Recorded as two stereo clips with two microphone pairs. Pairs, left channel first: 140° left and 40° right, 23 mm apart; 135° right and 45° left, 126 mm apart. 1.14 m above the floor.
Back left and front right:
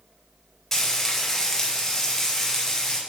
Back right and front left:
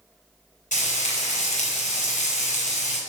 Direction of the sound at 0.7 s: 145° right.